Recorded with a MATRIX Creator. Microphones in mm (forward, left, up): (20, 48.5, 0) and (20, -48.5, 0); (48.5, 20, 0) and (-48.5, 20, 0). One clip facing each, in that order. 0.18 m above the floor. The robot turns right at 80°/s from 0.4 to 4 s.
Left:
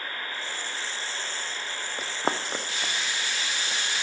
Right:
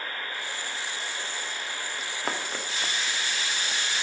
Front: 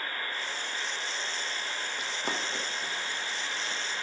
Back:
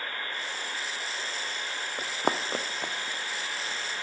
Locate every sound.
2.0 s running footsteps: 135° left, 0.6 m; by 3.8 s 115° right, 1.5 m